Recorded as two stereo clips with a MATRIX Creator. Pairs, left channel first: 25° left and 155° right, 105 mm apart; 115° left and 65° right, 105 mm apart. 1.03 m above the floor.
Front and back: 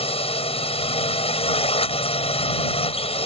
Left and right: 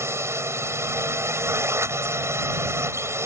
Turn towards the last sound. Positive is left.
turn(degrees=0)